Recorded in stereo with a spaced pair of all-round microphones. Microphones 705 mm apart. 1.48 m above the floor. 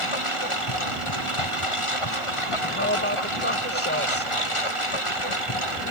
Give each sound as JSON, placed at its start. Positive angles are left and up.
{"t": 0.0, "sound": "a lawn mower", "side_deg": 45}
{"t": 2.6, "sound": "a woman speaking", "side_deg": 15}